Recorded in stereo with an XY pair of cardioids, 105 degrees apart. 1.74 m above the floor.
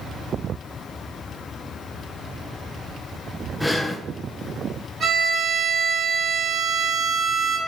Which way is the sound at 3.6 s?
5° left.